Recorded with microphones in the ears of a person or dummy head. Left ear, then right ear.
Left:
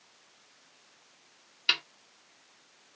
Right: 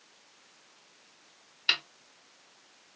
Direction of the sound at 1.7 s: 5° left (ahead or behind).